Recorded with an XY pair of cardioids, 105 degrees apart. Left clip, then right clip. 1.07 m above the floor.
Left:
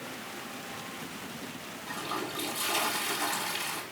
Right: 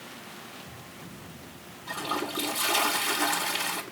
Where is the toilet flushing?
40° right, 2.5 m.